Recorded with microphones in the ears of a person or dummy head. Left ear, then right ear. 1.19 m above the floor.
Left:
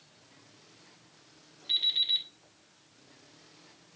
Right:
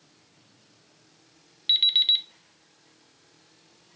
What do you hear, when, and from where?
1.7 s an alarm clock: 75° right (ahead or behind), 1.5 m